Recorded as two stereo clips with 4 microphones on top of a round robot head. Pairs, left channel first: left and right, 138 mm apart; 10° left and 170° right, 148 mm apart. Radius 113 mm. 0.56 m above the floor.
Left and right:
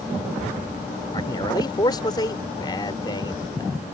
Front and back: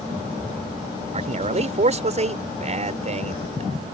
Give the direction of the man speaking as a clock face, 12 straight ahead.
7 o'clock.